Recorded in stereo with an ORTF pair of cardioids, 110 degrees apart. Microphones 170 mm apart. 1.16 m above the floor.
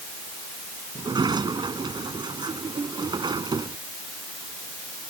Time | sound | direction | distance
0.9 | a sliding door | 25° right | ?